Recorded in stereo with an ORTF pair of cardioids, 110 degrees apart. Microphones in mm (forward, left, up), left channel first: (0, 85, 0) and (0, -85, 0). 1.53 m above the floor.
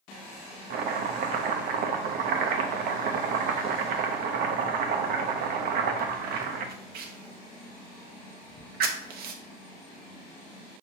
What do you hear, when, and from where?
0.7 s chopping: 70° right, 0.6 m